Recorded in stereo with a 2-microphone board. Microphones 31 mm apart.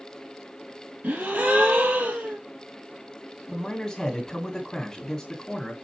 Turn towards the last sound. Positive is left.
turn(degrees=20)  # may be behind; listen again after turning